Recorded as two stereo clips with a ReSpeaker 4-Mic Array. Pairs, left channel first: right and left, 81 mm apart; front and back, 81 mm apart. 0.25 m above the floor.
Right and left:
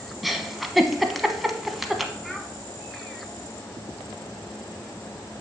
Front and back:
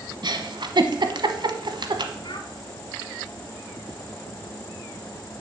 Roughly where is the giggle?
Behind.